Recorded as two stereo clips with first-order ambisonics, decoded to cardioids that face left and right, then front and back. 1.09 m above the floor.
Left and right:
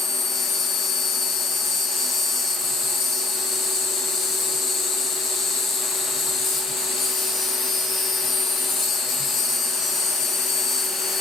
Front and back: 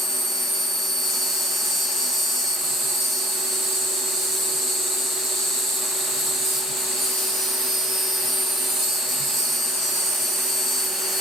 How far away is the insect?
About 1.4 m.